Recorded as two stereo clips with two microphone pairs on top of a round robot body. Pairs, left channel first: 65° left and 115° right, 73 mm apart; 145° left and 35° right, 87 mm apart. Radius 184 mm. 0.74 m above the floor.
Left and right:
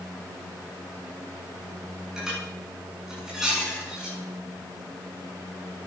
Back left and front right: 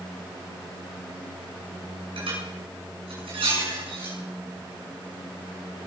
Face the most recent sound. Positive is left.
turn(degrees=-30)